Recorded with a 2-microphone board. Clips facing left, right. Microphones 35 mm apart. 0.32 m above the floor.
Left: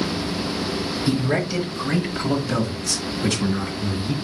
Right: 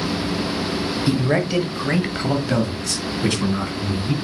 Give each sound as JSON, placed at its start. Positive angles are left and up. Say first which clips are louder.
{"t": 1.1, "sound": "a man speaking", "louder": "right 2 dB", "side_deg": -25, "distance_m": 1.0}